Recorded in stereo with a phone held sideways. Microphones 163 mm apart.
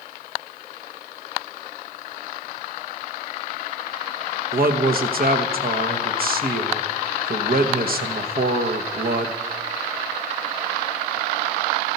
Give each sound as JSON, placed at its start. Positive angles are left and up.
{"t": 4.5, "sound": "a man speaking", "side_deg": -65, "distance_m": 1.1}